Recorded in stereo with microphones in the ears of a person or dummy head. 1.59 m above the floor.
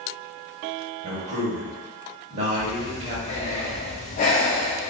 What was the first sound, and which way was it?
A man speaking, 50° right (ahead or behind).